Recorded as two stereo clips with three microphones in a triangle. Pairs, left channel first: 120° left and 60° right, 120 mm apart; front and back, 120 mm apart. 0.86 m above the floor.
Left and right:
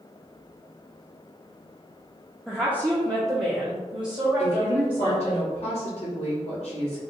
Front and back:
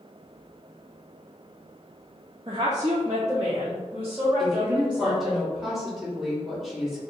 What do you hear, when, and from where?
2.5 s a woman speaking: 145° right, 0.5 m; by 5.4 s 100° right, 1.8 m
4.4 s a woman speaking: 90° left, 1.9 m